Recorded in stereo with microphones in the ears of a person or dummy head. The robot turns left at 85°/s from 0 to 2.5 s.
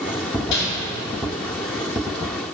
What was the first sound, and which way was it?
Crumpling, 65° left (ahead or behind).